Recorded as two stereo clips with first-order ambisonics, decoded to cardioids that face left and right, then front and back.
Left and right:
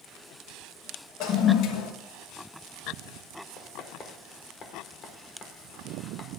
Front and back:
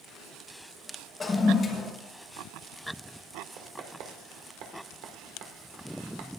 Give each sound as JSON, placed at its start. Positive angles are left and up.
{"t": 1.2, "sound": "a toilet flushing", "azimuth_deg": 70, "distance_m": 1.1}
{"t": 3.6, "sound": "writing", "azimuth_deg": 150, "distance_m": 1.7}